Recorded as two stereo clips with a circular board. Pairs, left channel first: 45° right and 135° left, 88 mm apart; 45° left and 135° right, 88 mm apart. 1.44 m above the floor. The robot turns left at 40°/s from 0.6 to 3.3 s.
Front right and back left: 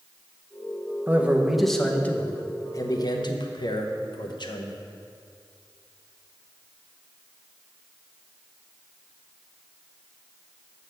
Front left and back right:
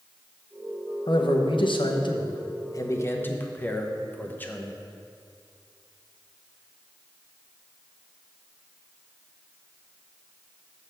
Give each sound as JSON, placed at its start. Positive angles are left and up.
{"t": 1.1, "sound": "a man speaking", "azimuth_deg": 70, "distance_m": 0.8}